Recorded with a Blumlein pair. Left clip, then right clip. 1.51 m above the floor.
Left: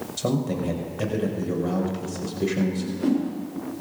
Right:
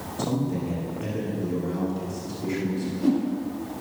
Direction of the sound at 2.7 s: 10° left.